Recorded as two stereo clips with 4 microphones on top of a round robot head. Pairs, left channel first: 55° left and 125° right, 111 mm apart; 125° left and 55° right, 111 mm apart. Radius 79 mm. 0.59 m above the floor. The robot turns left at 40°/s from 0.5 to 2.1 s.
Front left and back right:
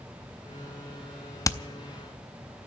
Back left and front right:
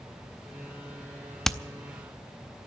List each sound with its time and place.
1.4 s hammering: 40° left, 0.7 m; by 1.6 s 35° left, 0.7 m